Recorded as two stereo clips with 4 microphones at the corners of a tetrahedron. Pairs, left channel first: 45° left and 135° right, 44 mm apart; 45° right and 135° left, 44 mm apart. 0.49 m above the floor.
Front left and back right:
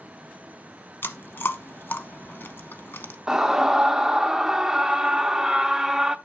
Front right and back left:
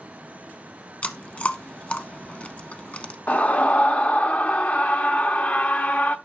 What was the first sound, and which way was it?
Chewing, 15° left.